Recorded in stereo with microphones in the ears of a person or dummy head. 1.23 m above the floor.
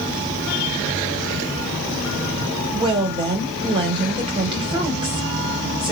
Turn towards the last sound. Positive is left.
turn(degrees=-30)  # may be behind; listen again after turning